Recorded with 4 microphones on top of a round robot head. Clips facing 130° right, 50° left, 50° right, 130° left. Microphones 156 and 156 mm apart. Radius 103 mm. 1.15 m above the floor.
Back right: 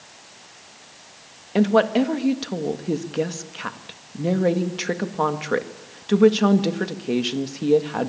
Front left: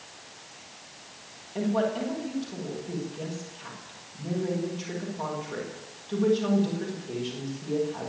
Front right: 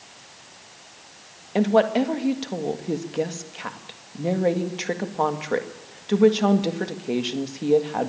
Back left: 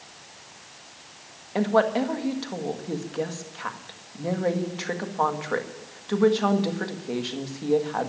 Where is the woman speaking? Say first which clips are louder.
Back right 9 dB, front right 3 dB; 120° right, 1.7 m.